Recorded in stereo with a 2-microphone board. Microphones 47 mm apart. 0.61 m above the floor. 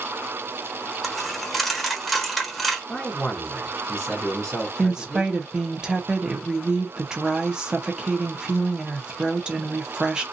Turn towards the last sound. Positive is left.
turn(degrees=-20)  # may be behind; listen again after turning